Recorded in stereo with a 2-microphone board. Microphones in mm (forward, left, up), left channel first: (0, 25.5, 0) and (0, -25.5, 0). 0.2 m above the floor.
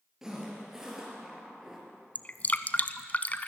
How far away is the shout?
I don't hear a shout.